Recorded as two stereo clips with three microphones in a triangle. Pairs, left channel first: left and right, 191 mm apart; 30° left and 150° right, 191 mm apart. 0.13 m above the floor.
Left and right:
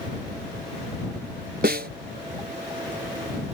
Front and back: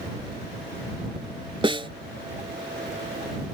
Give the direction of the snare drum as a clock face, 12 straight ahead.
3 o'clock.